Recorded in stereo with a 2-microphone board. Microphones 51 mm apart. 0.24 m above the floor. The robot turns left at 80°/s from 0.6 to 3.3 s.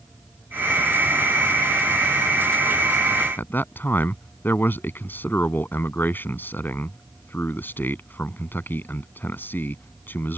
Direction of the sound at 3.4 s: 40° left (ahead or behind).